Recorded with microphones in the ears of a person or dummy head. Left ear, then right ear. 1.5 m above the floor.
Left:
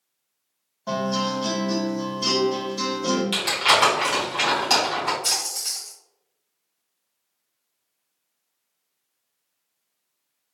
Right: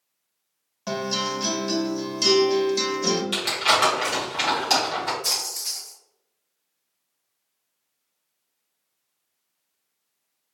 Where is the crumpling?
5° left (ahead or behind), 1.5 m.